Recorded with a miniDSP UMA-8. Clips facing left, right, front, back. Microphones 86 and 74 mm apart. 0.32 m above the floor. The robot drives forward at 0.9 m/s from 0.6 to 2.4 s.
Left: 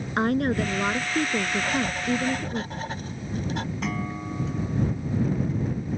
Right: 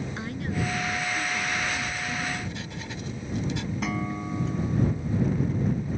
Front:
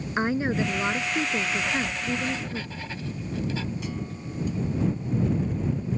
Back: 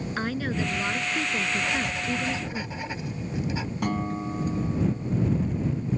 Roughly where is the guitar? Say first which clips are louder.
Even, back 6 dB; behind.